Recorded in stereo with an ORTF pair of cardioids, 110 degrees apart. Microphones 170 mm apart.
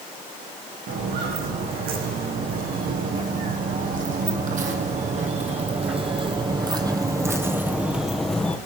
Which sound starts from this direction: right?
Footsteps, at 0.9 s.